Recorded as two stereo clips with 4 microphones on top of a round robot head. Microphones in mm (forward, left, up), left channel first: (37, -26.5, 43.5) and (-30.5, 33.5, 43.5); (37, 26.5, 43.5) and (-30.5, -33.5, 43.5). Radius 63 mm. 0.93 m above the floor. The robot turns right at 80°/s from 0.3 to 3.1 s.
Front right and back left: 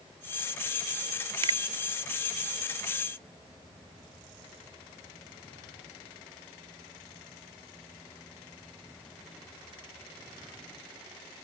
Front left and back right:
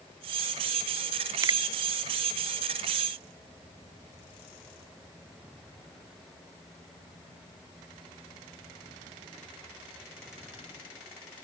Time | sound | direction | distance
1.4 | a finger snap | 170° left | ?